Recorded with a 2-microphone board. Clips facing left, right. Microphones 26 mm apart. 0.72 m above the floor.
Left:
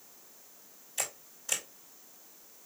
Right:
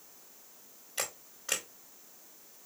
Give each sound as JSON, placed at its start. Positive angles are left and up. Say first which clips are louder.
{"t": 1.0, "sound": "a camera shutter", "louder": "right 1 dB", "side_deg": -45, "distance_m": 1.7}